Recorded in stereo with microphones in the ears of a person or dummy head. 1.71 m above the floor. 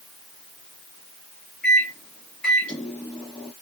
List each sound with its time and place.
1.6 s a microwave: 10° left (ahead or behind), 1.2 m